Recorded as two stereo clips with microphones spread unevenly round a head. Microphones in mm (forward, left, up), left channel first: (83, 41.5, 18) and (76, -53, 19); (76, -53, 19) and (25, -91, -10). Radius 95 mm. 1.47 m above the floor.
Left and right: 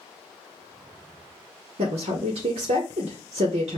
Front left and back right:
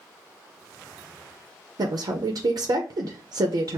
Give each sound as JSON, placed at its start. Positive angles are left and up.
{"t": 1.8, "sound": "a woman speaking", "azimuth_deg": -110, "distance_m": 0.7}